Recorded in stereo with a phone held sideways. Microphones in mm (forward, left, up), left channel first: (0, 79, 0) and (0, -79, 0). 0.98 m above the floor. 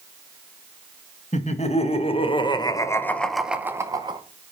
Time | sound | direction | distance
1.3 | laughter | 45° left (ahead or behind) | 1.6 m